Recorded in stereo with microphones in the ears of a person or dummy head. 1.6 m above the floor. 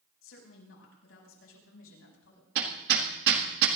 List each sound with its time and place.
0.2 s a woman speaking: 85° left, 6.5 m
2.5 s hammering: 65° right (ahead or behind), 1.8 m